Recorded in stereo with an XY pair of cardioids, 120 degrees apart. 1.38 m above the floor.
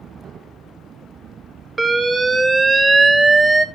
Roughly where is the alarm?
Ahead right.